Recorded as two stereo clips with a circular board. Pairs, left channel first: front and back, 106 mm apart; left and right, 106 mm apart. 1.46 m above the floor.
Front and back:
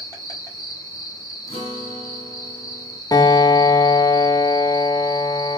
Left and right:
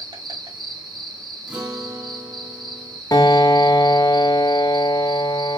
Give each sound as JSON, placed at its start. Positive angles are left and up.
{"t": 0.0, "sound": "an insect", "azimuth_deg": -50, "distance_m": 1.9}
{"t": 1.5, "sound": "a guitar", "azimuth_deg": -10, "distance_m": 2.0}
{"t": 3.1, "sound": "a piano", "azimuth_deg": 45, "distance_m": 0.6}